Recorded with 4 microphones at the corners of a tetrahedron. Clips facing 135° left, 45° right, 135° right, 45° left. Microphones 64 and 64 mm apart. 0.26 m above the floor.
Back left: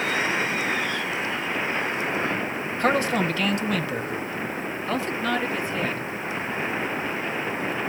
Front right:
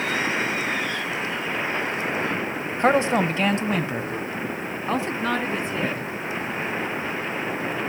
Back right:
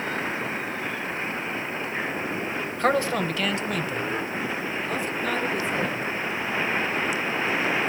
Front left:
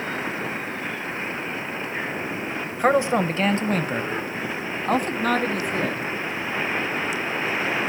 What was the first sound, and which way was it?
A man speaking, 20° right.